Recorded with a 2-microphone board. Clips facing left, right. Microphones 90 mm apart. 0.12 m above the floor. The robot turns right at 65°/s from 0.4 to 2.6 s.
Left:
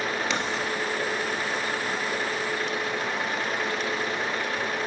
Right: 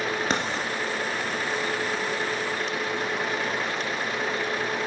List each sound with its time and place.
0.3 s writing: 45° right (ahead or behind), 1.6 m; by 0.7 s 30° right (ahead or behind), 1.6 m